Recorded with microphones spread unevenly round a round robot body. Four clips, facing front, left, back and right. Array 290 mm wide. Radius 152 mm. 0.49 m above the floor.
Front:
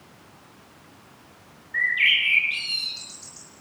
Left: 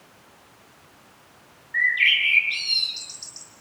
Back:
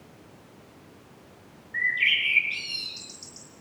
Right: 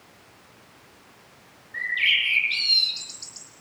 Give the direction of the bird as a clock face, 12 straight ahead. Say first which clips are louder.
Left 4 dB, front 3 dB; 12 o'clock.